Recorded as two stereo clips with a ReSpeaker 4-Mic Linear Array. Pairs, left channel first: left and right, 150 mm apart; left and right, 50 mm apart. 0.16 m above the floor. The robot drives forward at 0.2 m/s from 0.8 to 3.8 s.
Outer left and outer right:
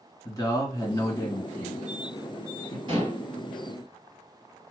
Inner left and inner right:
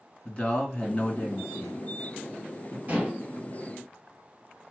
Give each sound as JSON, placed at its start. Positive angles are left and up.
{"t": 0.2, "sound": "a man speaking", "side_deg": 25, "distance_m": 2.0}
{"t": 2.9, "sound": "dishes clattering", "side_deg": -35, "distance_m": 1.5}